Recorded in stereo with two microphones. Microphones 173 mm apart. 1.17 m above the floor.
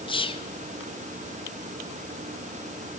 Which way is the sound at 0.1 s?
30° left (ahead or behind).